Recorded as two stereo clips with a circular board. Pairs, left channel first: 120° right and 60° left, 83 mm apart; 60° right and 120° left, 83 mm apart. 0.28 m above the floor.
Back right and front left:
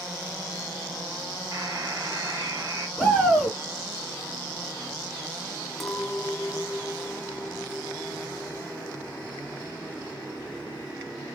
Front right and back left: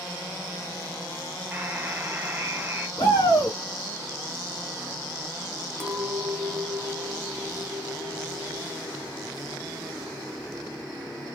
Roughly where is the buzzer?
Ahead left.